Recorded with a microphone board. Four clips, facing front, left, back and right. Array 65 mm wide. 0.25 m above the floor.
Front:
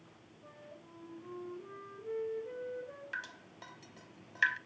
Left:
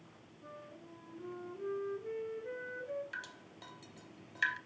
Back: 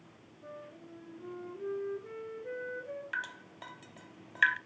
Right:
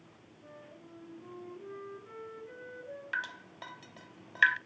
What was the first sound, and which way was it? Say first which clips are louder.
A flute: left 1 dB, back 6 dB; 155° left.